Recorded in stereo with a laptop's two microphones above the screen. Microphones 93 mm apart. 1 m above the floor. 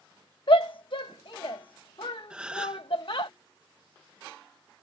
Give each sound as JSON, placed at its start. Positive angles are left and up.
{"t": 0.5, "sound": "a shout", "side_deg": 60}
{"t": 2.3, "sound": "a gasp", "side_deg": -10}